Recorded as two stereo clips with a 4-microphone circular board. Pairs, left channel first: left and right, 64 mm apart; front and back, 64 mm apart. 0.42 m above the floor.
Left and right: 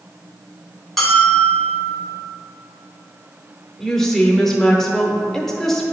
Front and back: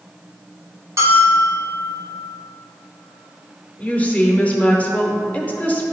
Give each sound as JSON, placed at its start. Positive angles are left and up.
{"t": 1.0, "sound": "a bell", "azimuth_deg": 180, "distance_m": 1.1}
{"t": 3.8, "sound": "a woman speaking", "azimuth_deg": 20, "distance_m": 0.8}